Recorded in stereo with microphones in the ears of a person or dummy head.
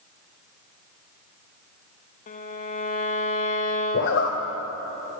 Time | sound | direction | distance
2.3 | a violin | 40° left (ahead or behind) | 1.1 m
3.9 | a zipper | 60° left (ahead or behind) | 2 m